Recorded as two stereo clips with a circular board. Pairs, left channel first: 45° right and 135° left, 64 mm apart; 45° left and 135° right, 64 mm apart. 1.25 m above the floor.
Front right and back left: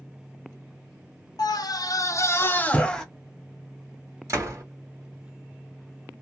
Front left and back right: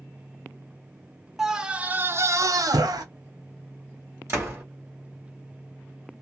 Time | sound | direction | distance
1.4 | a scream | 50° right | 0.7 m
4.3 | a door slam | 175° left | 1.5 m